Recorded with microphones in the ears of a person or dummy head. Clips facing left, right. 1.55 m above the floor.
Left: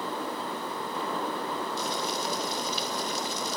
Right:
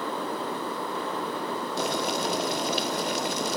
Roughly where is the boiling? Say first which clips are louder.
Right 4 dB; right.